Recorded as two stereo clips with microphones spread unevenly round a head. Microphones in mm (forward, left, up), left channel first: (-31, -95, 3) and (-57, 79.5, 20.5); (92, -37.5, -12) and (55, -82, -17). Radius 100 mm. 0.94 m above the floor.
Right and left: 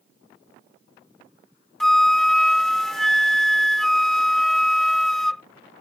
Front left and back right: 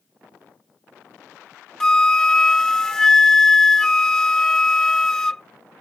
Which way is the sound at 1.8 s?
20° left.